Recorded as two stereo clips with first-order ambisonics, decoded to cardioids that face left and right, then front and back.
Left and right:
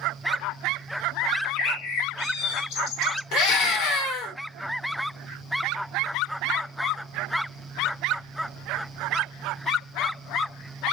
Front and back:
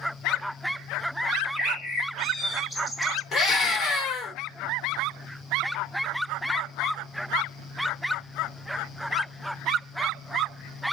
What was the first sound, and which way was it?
A bird, 85° left.